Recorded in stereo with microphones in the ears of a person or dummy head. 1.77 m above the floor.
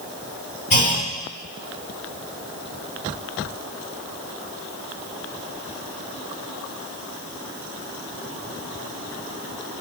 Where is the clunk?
40° left (ahead or behind), 1.8 m.